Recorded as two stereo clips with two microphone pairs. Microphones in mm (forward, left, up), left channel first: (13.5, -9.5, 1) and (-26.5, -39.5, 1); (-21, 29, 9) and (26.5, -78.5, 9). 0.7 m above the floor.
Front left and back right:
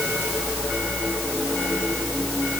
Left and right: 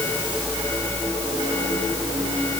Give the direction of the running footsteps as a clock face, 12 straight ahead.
No running footsteps in this recording.